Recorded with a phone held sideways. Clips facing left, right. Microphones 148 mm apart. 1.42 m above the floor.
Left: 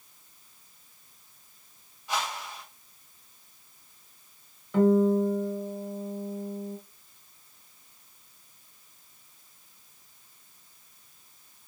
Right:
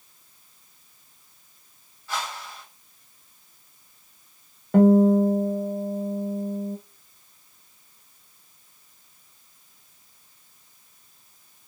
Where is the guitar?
55° right (ahead or behind), 1.1 m.